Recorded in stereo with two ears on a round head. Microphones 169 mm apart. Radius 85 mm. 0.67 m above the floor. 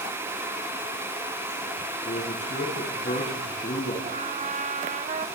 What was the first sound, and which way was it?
A man speaking, 45° left (ahead or behind).